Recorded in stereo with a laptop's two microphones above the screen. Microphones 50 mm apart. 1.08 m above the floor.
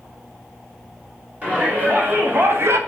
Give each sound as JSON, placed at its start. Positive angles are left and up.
{"t": 1.4, "sound": "a shout", "side_deg": -30, "distance_m": 2.5}